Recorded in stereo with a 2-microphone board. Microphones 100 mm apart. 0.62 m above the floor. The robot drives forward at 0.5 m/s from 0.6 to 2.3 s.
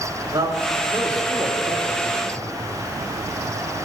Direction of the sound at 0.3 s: 30° right (ahead or behind).